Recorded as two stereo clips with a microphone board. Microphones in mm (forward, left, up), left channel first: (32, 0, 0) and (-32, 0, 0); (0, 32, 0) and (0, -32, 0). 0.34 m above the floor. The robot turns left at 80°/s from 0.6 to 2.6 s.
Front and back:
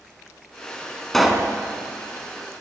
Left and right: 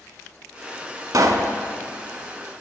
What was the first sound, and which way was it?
A pop, 85° right.